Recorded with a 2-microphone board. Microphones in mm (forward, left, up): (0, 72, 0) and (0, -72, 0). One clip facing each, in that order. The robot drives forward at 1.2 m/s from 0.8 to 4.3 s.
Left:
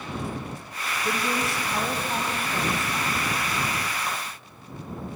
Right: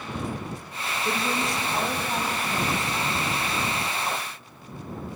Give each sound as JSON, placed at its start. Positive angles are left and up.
{"t": 1.1, "sound": "a woman speaking", "side_deg": 5, "distance_m": 2.5}